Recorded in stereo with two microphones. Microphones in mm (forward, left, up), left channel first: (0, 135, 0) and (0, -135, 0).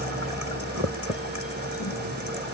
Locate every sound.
0.0 s a helicopter: 30° right (ahead or behind); by 2.5 s 25° right (ahead or behind)